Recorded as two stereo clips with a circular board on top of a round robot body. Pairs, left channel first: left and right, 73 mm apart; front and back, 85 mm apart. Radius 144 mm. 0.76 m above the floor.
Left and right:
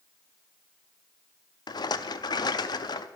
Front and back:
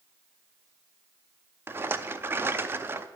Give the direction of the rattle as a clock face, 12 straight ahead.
8 o'clock.